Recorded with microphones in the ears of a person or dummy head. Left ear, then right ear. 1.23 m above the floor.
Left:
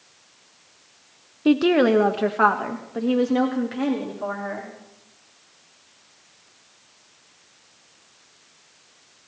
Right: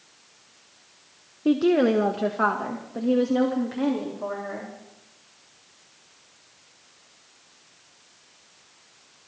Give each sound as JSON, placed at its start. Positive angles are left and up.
{"t": 1.4, "sound": "a woman speaking", "side_deg": 25, "distance_m": 0.6}